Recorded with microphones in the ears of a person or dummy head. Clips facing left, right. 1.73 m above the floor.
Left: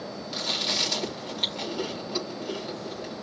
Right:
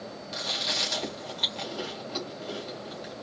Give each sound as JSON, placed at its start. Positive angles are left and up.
{"t": 0.3, "sound": "chewing", "side_deg": 15, "distance_m": 4.0}